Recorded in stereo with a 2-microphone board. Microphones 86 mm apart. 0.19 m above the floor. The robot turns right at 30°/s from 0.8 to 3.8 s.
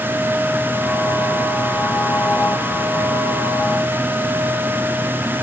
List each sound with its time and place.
Only background noise.